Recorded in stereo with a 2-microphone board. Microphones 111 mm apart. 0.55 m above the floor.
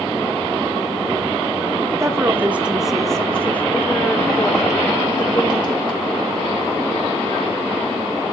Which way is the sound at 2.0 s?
25° right (ahead or behind).